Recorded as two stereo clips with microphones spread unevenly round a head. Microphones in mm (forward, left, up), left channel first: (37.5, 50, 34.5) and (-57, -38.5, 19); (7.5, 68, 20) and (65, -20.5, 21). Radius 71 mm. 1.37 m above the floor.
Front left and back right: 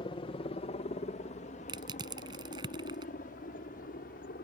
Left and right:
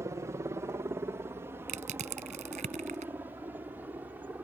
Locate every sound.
0.0 s a helicopter: straight ahead; by 4.4 s 15° left
1.7 s crushing: 75° right